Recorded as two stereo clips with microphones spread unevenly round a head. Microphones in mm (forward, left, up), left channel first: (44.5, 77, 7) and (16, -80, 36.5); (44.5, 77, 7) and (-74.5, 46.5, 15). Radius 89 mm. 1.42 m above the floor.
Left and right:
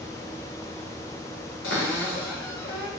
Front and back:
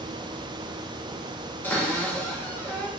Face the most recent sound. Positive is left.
turn(degrees=90)